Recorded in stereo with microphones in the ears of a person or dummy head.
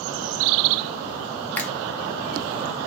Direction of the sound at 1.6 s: 5° left (ahead or behind).